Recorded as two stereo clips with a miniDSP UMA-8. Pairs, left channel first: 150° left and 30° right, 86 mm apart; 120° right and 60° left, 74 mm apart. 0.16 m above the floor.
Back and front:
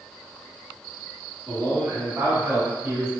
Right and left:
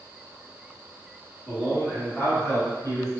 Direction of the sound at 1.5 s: 15° right.